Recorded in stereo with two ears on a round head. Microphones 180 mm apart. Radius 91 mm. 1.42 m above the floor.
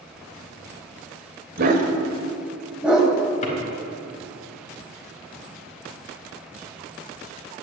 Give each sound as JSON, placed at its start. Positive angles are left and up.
{"t": 1.6, "sound": "a dog barking", "side_deg": -50, "distance_m": 1.7}
{"t": 3.4, "sound": "a drawer", "side_deg": 35, "distance_m": 3.5}